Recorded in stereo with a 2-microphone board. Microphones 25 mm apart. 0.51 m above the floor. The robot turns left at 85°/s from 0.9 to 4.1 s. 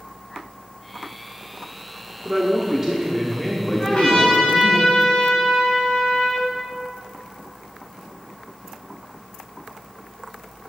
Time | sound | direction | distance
2.2 | a man speaking | 85° right | 1.2 m
3.8 | a trumpet | 30° left (ahead or behind) | 4 m